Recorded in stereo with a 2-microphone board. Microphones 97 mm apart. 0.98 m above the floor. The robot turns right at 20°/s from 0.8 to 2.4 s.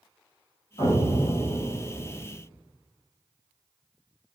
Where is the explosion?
55° left (ahead or behind), 2.0 m; by 2.2 s 75° left (ahead or behind), 2.0 m.